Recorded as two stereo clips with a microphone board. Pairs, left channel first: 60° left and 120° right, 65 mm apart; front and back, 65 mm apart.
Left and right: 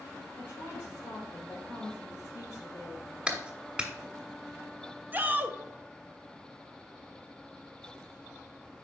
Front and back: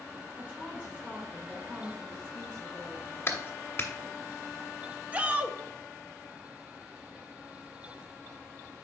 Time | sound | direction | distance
0.4 | a woman speaking | 110° left | 3 m
3.3 | a clap | 50° right | 1.2 m
5.1 | a shout | 140° right | 0.6 m